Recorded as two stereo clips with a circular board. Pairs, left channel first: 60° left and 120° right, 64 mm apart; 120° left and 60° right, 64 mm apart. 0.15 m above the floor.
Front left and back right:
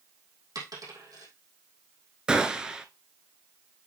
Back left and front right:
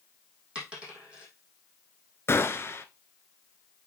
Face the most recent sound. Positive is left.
turn(degrees=165)